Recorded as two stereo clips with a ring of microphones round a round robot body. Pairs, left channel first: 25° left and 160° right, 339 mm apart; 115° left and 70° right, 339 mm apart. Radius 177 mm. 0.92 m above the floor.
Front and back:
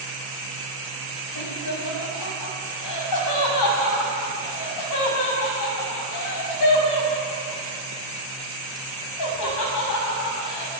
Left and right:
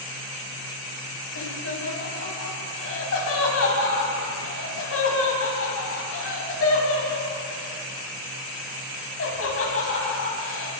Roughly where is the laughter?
Ahead left.